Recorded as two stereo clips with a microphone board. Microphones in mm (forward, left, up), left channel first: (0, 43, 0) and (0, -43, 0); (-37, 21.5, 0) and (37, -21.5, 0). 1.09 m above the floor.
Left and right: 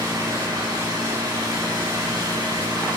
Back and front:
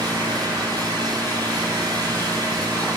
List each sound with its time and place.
0.0 s an engine running: 60° right, 8.5 m